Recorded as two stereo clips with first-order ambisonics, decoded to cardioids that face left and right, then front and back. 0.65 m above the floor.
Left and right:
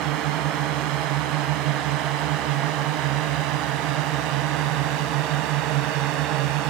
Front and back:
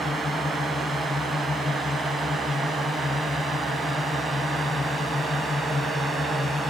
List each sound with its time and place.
0.0 s a drone: 75° right; by 6.7 s 80° right